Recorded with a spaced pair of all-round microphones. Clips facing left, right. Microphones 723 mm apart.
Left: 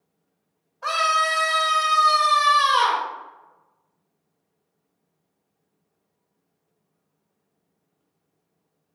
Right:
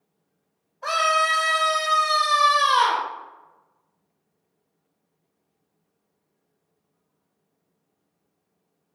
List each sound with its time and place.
0.8 s a scream: 45° left (ahead or behind), 0.5 m